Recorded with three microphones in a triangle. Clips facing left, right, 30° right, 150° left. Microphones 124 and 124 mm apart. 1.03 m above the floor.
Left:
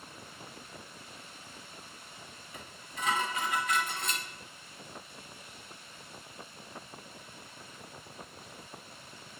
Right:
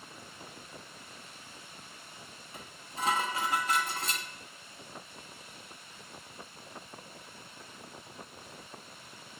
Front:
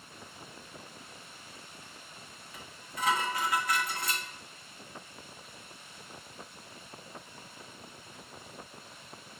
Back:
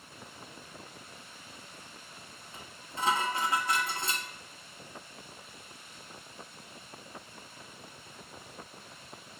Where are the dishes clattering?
145° right, 1.0 m.